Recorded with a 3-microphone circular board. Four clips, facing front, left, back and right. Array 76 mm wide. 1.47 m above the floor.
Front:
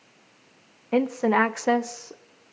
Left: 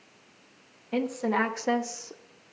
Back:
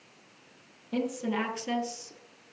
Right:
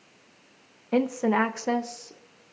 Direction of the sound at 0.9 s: 35° right.